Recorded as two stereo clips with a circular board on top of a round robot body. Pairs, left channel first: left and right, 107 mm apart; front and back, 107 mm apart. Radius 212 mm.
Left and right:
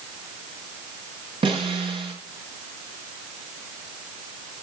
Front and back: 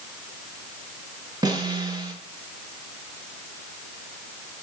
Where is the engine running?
I don't hear an engine running.